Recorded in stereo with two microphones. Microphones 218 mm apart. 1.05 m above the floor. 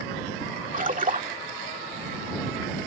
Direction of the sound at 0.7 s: 35° right (ahead or behind).